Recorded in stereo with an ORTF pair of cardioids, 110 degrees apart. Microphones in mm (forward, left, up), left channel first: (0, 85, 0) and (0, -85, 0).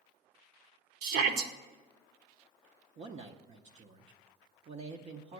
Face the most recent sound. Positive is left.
turn(degrees=-40)